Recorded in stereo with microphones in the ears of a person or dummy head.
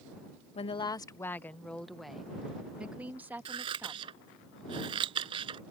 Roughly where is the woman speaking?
Left.